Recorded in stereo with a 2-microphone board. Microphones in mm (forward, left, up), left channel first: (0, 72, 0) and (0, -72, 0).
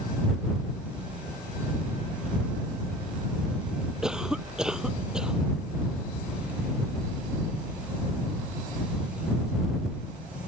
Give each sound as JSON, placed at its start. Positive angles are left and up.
{"t": 4.0, "sound": "a cough", "side_deg": -5}